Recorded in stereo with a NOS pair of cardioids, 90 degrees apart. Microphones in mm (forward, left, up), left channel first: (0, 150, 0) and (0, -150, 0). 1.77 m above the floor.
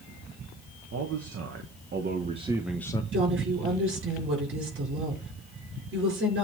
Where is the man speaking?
55° right, 1.5 m; by 3.0 s 20° left, 0.7 m.